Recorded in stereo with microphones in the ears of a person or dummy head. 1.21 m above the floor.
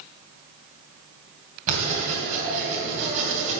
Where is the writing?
40° right (ahead or behind), 3 m.